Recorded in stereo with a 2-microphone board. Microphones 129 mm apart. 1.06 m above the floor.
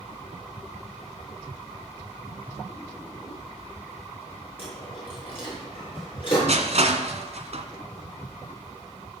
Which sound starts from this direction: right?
Crushing, at 6.5 s.